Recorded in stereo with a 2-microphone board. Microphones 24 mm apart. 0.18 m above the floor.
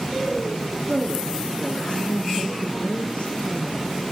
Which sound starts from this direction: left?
A woman speaking, at 0.9 s.